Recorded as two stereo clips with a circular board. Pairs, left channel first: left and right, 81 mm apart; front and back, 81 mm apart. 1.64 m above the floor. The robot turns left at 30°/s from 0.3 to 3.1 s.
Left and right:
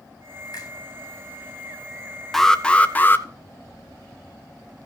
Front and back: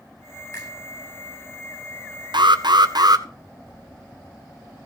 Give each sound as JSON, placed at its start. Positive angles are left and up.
{"t": 0.5, "sound": "a finger snap", "azimuth_deg": 50, "distance_m": 8.5}
{"t": 2.3, "sound": "an alarm", "azimuth_deg": 175, "distance_m": 0.9}